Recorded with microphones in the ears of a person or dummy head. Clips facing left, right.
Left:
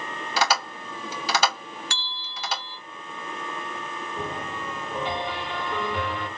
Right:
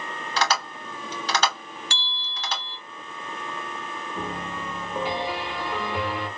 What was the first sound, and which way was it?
Tapping, 10° left (ahead or behind).